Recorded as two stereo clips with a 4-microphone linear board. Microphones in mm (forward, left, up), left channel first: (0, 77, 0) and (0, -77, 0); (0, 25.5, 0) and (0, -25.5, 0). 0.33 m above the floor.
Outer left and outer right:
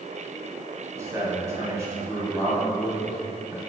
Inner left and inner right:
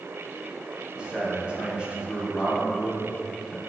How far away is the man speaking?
About 2.5 m.